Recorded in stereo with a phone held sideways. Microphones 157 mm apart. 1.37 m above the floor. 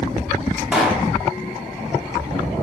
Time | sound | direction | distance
0.7 | a pop | 5° right (ahead or behind) | 0.7 m